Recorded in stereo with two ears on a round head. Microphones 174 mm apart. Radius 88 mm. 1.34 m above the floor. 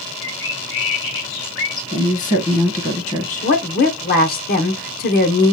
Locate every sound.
0.2 s a bird: 65° left (ahead or behind), 3 m
1.9 s a woman speaking: 35° left (ahead or behind), 1.4 m
3.4 s a woman speaking: 45° left (ahead or behind), 1.0 m